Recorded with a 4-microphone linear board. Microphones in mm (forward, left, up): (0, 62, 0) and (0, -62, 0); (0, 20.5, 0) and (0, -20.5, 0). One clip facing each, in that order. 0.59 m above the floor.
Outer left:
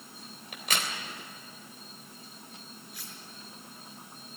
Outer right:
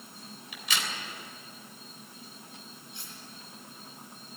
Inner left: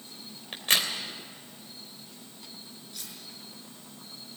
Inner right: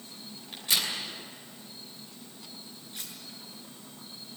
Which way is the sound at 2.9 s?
25° right (ahead or behind).